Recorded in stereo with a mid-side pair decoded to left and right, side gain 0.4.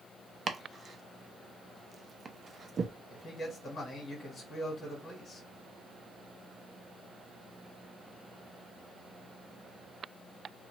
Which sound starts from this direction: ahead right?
Chopping, at 0.5 s.